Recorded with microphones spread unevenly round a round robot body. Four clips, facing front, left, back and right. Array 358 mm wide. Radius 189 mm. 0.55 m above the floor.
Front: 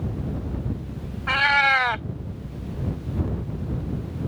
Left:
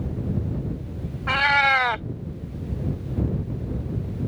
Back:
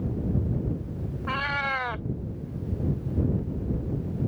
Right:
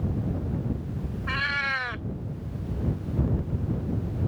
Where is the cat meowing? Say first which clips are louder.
Left 10 dB, front 9 dB; 50° left.